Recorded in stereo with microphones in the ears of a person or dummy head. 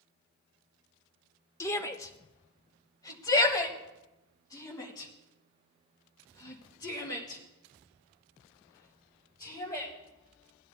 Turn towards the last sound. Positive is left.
turn(degrees=20)  # may be behind; listen again after turning